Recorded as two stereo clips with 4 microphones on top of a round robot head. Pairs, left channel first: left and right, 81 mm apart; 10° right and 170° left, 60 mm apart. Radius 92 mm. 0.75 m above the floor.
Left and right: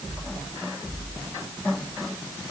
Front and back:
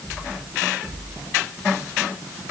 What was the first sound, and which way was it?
Only background noise.